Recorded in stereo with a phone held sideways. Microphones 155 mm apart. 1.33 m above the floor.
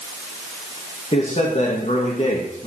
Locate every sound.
1.1 s a man speaking: 40° left (ahead or behind), 2 m